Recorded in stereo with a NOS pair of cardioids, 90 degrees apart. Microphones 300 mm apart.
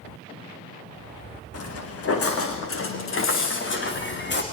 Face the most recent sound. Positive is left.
turn(degrees=35)